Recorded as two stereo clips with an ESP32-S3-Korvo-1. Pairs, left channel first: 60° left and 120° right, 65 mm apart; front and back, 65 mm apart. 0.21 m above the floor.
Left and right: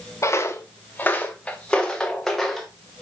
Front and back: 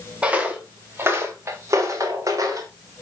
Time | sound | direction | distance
0.2 | footsteps | 110° left | 1.4 m